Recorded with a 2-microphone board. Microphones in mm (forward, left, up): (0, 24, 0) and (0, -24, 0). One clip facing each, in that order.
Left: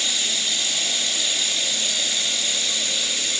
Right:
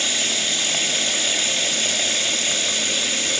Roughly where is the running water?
Right.